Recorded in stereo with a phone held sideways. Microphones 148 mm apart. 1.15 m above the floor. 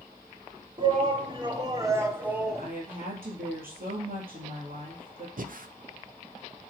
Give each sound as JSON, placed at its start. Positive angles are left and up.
{"t": 0.8, "sound": "a shout", "side_deg": -35, "distance_m": 1.9}
{"t": 2.5, "sound": "a woman speaking", "side_deg": -75, "distance_m": 2.5}
{"t": 5.4, "sound": "breathing", "side_deg": -70, "distance_m": 0.5}